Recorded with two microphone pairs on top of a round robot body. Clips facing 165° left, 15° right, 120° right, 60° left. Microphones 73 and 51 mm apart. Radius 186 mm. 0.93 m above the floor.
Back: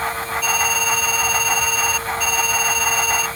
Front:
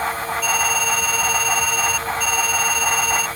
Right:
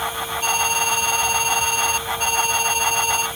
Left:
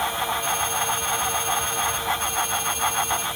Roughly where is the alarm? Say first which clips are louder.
Back 1 dB, right 4 dB; right.